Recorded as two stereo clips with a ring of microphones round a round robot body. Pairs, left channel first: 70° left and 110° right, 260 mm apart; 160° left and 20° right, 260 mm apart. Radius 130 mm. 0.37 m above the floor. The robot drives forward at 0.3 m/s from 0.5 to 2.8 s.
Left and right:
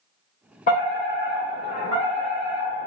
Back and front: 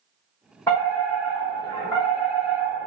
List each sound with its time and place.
0.7 s a fire alarm: 85° left, 2.0 m; by 2.9 s 125° left, 2 m